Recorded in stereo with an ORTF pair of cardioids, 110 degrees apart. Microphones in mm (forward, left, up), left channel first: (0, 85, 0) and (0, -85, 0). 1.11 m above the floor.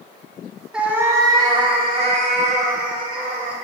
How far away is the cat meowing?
About 1.0 m.